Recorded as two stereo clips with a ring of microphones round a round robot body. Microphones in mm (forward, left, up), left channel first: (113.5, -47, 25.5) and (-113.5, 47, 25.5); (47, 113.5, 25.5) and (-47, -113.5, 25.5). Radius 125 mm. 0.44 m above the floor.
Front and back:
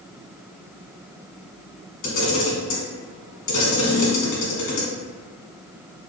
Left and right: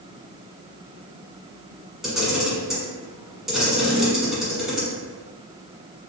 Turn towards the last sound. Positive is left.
turn(degrees=-25)